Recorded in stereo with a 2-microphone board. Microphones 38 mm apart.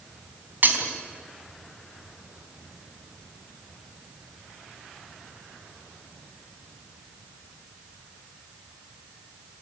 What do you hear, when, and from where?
0.6 s breaking glass: 55° right (ahead or behind), 2.5 m